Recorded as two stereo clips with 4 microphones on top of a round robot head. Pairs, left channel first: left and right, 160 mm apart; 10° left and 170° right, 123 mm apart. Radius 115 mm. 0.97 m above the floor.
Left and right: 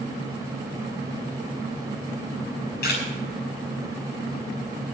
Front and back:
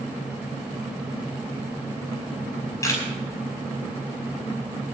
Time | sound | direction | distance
2.4 | a camera shutter | 75° left | 9 m